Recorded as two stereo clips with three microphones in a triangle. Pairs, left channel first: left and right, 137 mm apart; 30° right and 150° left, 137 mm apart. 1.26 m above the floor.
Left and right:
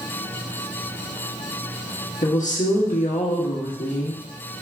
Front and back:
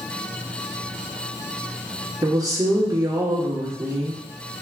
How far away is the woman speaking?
About 1.2 m.